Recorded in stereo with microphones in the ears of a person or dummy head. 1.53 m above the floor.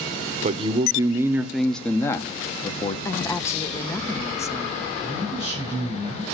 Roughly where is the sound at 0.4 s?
Right.